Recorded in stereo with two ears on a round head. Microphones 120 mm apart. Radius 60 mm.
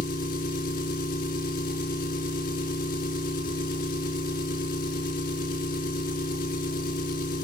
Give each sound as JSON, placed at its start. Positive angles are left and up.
{"t": 0.0, "sound": "an engine running", "side_deg": 80, "distance_m": 4.0}